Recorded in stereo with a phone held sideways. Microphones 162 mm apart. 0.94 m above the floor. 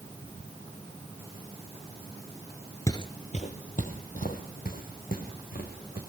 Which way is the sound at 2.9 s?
20° left (ahead or behind).